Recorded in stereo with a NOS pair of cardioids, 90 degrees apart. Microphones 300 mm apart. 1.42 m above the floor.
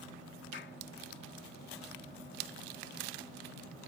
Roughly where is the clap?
Ahead left.